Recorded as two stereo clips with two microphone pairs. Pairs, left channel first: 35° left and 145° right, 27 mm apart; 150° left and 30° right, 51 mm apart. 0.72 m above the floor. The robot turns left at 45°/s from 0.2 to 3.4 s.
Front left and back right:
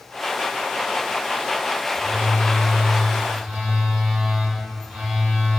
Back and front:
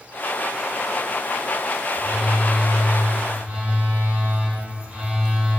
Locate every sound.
1.9 s a phone buzzing: 35° right, 1.6 m; by 5.6 s 100° right, 1.6 m